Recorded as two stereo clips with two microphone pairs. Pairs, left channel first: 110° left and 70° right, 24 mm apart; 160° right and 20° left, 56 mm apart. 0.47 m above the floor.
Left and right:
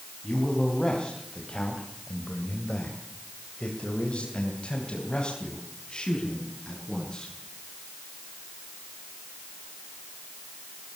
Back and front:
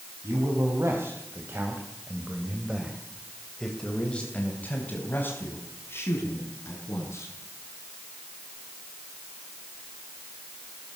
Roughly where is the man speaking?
Ahead left.